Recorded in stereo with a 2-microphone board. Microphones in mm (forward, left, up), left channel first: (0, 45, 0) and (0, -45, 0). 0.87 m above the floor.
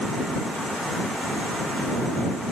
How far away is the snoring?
No snoring in this recording.